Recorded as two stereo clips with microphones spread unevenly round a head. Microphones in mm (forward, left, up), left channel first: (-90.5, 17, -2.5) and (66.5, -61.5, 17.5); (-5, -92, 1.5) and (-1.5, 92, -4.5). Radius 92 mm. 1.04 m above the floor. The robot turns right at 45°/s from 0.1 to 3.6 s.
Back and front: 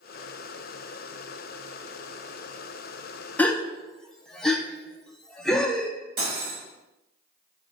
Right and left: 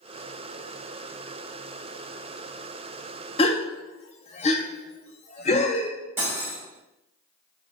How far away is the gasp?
About 0.6 m.